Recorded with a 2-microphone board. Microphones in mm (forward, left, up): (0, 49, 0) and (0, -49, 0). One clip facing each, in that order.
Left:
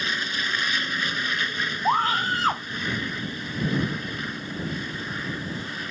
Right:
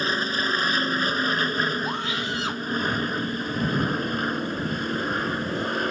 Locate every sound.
0.0 s an aircraft: 35° right (ahead or behind); by 5.9 s 55° right (ahead or behind)
1.9 s a scream: 45° left (ahead or behind)